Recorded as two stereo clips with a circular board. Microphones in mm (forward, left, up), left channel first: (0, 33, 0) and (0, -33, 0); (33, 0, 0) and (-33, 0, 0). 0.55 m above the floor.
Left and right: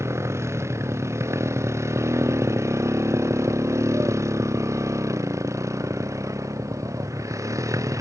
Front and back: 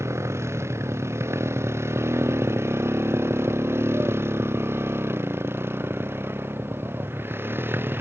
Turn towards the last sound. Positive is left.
turn(degrees=-125)